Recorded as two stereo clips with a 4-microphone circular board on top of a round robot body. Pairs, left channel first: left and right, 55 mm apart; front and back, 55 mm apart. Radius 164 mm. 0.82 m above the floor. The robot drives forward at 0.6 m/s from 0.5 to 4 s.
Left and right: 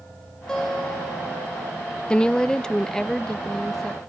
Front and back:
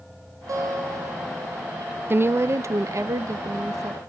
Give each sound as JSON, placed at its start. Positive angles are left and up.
{"t": 0.5, "sound": "a guitar", "azimuth_deg": 170, "distance_m": 4.5}
{"t": 2.1, "sound": "a woman speaking", "azimuth_deg": 155, "distance_m": 0.5}